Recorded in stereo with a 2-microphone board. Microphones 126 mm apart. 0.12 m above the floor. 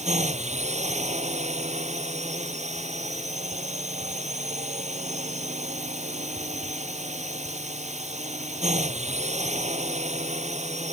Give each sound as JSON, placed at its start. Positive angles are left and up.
{"t": 0.0, "sound": "a drone", "side_deg": -65}